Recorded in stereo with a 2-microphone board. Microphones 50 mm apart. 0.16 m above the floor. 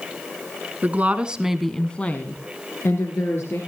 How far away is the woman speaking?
About 1.6 m.